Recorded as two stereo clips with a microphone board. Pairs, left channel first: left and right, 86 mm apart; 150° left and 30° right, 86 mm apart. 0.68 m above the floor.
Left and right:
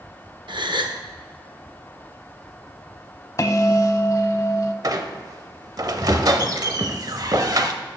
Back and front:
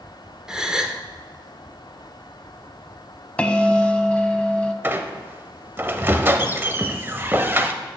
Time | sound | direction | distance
0.5 | a gasp | 110° right | 0.6 m
3.4 | a bell | 80° left | 0.6 m
4.8 | a squeak | 85° right | 0.5 m